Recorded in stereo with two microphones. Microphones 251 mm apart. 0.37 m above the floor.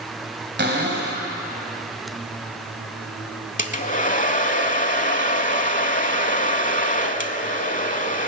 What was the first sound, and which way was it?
A cupboard door, 40° right (ahead or behind).